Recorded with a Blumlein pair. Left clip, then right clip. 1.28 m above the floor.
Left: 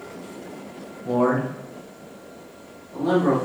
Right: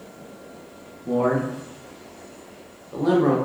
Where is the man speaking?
20° left, 0.7 m; by 3.4 s 70° right, 1.2 m.